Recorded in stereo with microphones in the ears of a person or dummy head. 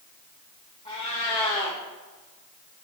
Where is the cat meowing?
20° left (ahead or behind), 1.0 m.